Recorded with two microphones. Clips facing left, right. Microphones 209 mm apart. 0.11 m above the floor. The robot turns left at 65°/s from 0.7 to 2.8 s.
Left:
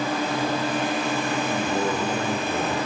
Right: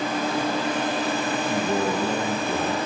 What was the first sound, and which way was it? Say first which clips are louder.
A man speaking: right 3 dB; 40° right.